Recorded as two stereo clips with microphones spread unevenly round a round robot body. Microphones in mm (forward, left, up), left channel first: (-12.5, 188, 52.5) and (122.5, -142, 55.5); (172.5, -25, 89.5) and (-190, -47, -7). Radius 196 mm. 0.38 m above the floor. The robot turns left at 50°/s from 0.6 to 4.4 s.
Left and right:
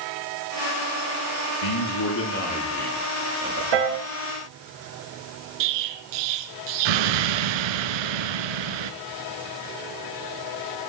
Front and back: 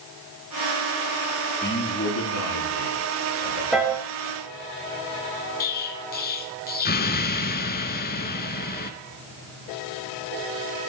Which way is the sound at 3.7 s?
90° right.